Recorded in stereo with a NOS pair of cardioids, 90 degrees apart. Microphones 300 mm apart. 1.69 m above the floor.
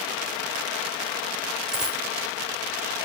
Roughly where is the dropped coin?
Ahead.